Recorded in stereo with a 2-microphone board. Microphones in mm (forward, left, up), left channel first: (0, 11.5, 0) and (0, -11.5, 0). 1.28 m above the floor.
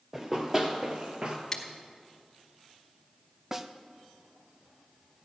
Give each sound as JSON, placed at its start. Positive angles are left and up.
{"t": 0.1, "sound": "running footsteps", "side_deg": -20, "distance_m": 1.8}
{"t": 1.5, "sound": "scissors", "side_deg": 20, "distance_m": 1.3}
{"t": 3.5, "sound": "a snare drum", "side_deg": -15, "distance_m": 0.6}